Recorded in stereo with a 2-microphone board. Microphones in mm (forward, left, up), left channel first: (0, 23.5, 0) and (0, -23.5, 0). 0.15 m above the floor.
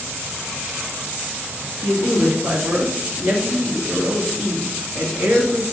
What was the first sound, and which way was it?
A man speaking, 45° right (ahead or behind).